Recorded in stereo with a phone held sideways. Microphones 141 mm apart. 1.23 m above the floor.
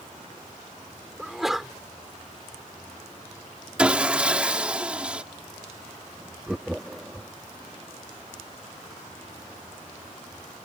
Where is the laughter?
5° right (ahead or behind).